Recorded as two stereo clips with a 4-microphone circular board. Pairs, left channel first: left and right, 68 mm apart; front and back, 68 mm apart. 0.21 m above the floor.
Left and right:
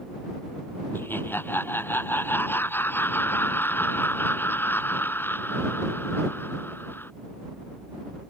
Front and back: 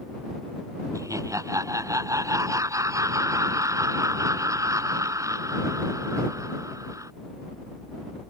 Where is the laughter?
145° left.